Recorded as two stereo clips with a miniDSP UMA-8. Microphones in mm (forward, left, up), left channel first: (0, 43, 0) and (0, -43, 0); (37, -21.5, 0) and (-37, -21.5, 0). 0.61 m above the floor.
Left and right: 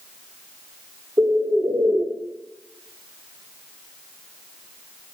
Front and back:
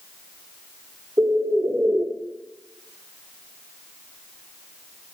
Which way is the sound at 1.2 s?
135° right.